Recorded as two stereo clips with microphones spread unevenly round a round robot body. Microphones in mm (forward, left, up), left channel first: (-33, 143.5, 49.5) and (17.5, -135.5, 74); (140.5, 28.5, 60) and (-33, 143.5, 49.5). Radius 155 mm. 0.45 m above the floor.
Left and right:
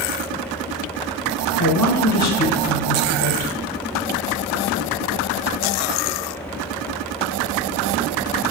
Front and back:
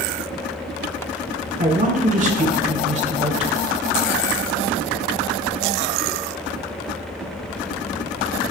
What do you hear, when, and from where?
1.6 s a man speaking: 100° left, 3 m; by 3.7 s 90° left, 2 m